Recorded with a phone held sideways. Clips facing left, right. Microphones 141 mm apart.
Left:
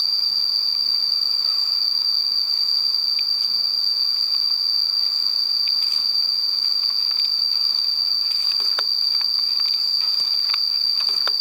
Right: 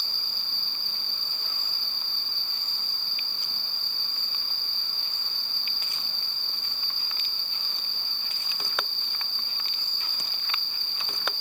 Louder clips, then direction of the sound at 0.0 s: Left 3 dB; 35° left (ahead or behind).